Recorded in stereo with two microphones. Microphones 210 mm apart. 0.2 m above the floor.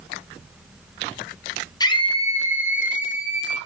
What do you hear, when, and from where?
1.8 s a scream: 20° left (ahead or behind), 1.7 m; by 3.6 s 35° left (ahead or behind), 2 m